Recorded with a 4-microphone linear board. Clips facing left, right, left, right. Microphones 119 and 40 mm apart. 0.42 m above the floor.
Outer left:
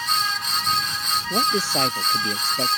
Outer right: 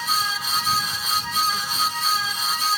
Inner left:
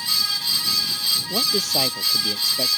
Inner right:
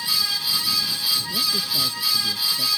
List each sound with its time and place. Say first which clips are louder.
1.3 s a man speaking: outer left 7 dB, inner left 2 dB; 80° left